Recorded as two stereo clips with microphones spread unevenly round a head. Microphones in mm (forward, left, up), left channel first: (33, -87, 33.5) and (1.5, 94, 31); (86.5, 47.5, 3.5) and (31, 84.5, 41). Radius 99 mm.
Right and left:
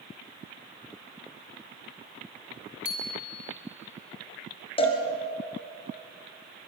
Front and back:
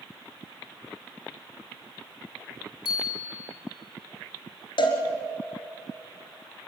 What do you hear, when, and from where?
2.9 s a bicycle bell: 80° right, 3 m
4.8 s a cowbell: 20° right, 3 m